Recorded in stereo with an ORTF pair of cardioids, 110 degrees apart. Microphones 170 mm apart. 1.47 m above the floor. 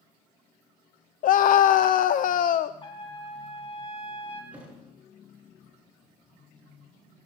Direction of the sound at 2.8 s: 35° left.